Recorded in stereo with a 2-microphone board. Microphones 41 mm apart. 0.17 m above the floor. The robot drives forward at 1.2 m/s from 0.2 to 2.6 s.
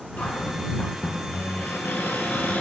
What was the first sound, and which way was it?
A cupboard door, 50° left (ahead or behind).